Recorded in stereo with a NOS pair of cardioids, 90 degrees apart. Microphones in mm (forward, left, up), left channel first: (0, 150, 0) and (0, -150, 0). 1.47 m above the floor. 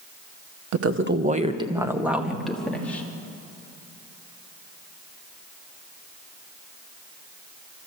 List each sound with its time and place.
0.7 s a woman speaking: 60° right, 1.2 m; by 3.0 s 5° left, 3.5 m